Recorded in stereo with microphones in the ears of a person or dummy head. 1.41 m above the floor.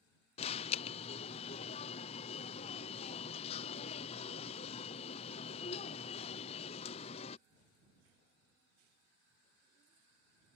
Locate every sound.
0.4 s an alarm: 30° left (ahead or behind)